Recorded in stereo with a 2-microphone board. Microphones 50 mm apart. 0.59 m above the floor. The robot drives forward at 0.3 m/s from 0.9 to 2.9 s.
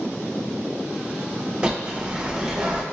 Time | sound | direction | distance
1.6 | a bird | 25° right (ahead or behind) | 0.8 m